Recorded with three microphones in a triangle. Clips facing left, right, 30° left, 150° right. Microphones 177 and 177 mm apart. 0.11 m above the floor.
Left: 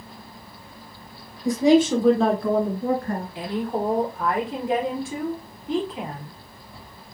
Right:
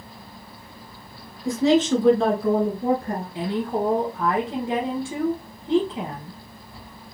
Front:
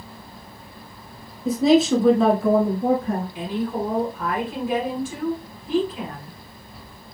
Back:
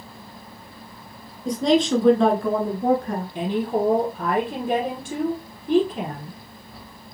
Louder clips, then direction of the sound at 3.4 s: Right 3 dB, back 3 dB; 145° right.